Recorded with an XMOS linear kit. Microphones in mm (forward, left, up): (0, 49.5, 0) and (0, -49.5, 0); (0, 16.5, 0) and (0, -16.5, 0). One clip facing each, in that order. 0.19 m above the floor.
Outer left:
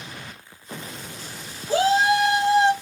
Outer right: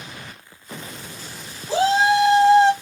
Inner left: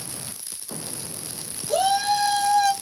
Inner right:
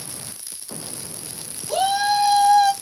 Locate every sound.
1.7 s a shout: 25° right (ahead or behind), 1.6 m; by 2.7 s 35° right (ahead or behind), 1.6 m